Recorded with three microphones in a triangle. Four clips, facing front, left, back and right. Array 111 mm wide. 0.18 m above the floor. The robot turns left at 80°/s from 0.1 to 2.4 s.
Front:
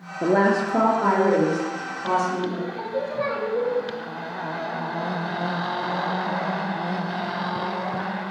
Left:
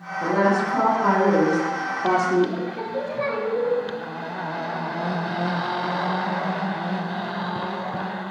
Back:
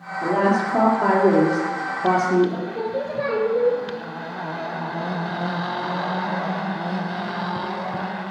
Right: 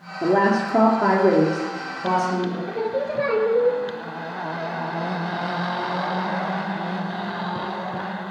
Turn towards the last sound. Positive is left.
turn(degrees=-120)